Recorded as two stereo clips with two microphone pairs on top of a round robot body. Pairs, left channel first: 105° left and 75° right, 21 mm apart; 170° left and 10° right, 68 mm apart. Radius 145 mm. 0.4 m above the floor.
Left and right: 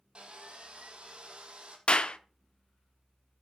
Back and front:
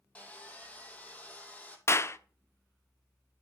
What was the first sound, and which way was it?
Sawing, 120° right.